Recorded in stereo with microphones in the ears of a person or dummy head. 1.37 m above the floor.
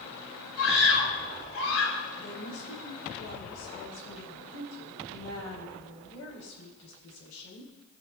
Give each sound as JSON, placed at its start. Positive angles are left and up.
{"t": 0.6, "sound": "a scream", "side_deg": 75, "distance_m": 3.0}
{"t": 2.1, "sound": "a woman speaking", "side_deg": 85, "distance_m": 3.5}